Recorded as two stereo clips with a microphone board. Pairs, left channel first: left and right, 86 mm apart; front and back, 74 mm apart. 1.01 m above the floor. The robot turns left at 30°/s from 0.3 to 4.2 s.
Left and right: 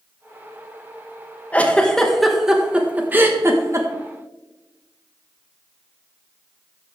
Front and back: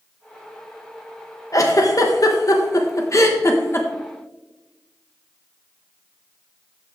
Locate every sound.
1.5 s a giggle: 25° left, 1.1 m; by 3.9 s 50° right, 1.1 m